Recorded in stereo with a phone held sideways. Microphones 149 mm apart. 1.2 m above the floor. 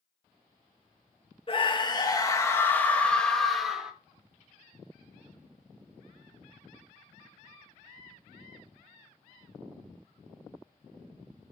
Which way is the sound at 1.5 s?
40° left (ahead or behind).